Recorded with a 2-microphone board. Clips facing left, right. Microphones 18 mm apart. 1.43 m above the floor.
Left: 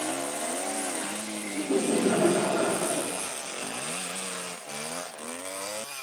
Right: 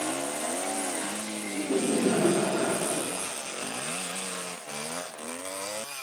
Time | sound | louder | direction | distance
1.6 | laughter | left 1 dB | 50° left (ahead or behind) | 3.5 m